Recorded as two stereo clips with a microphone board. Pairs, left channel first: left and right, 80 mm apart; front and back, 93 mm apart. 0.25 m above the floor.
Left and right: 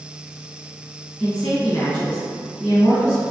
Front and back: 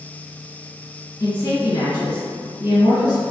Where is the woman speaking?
15° left, 2.0 m.